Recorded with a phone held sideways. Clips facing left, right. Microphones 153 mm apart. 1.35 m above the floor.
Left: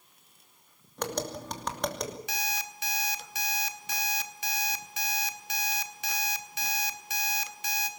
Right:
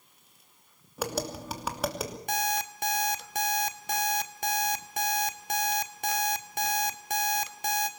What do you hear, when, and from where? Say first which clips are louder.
1.0 s tapping: right 1 dB; 5° right (ahead or behind), 2.5 m
2.3 s an alarm clock: right 7 dB; 55° right (ahead or behind), 1.8 m